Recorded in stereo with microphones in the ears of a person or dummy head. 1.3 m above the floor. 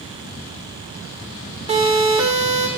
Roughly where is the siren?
Right.